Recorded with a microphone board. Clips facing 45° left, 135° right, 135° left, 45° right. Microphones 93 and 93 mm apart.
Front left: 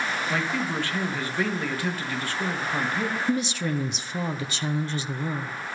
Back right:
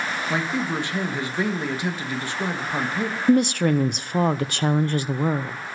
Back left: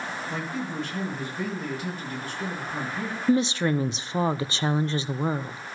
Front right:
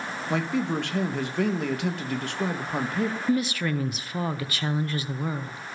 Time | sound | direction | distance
0.3 | a man speaking | 65° right | 1.8 m
3.3 | a woman speaking | 165° right | 0.7 m